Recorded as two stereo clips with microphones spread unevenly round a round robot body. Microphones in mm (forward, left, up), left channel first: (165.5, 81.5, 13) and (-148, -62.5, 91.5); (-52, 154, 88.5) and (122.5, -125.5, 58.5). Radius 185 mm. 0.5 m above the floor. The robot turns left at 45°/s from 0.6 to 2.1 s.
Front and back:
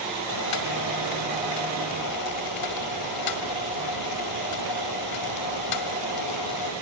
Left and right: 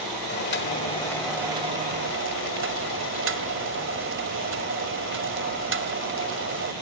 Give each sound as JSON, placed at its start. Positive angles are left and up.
{"t": 0.3, "sound": "boiling", "azimuth_deg": 60, "distance_m": 1.8}